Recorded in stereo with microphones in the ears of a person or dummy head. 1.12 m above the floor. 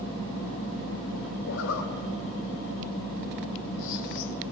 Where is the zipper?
80° left, 2.5 m.